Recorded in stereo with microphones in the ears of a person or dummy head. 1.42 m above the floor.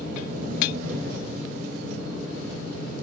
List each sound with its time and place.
0.0 s an engine running: 45° right (ahead or behind), 3.5 m